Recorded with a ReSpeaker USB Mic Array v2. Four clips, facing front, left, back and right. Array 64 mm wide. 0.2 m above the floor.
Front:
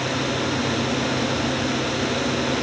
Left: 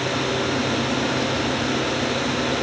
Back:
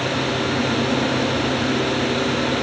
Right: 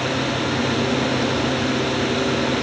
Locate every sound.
Only background noise.